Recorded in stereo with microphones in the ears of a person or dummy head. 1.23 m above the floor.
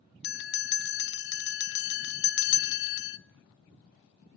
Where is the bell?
65° left (ahead or behind), 0.6 m.